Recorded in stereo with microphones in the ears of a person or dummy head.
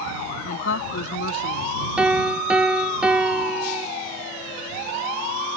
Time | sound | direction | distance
0.5 | a woman speaking | 90° left | ?
2.0 | a piano | 5° right (ahead or behind) | ?